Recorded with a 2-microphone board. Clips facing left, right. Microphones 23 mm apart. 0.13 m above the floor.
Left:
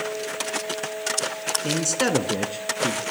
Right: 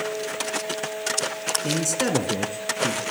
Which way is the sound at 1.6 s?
10° left (ahead or behind).